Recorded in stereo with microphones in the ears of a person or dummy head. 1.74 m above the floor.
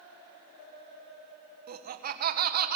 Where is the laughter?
45° right (ahead or behind), 1.7 m.